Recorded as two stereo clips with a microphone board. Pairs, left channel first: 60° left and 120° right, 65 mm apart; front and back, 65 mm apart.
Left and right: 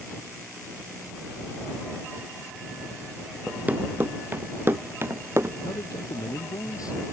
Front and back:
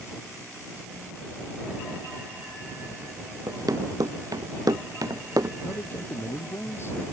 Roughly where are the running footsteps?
Behind.